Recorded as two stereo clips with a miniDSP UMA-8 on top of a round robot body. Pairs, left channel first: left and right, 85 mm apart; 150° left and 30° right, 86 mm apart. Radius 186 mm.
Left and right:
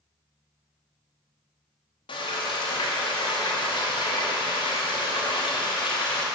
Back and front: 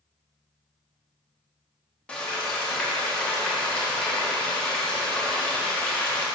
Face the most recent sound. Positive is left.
turn(degrees=70)